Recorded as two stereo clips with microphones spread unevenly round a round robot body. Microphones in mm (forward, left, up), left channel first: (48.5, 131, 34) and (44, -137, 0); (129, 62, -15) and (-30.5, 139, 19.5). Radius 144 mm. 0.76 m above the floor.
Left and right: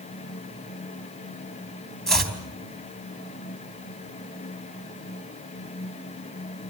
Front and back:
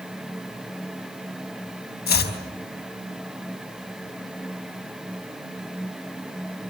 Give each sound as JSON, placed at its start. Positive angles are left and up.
{"t": 2.1, "sound": "chopping", "azimuth_deg": 0, "distance_m": 4.5}